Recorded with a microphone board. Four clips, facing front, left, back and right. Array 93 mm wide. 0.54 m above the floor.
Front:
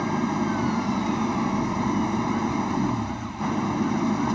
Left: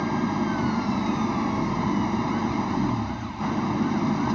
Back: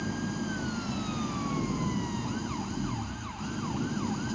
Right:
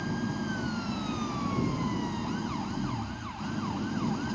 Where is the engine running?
35° left.